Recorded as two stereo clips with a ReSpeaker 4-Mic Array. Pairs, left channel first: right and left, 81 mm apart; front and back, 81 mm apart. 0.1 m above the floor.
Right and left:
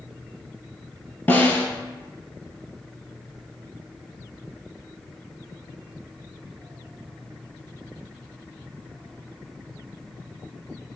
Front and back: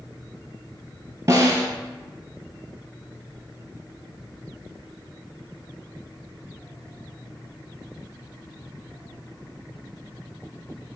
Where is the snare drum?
140° right, 1.0 m.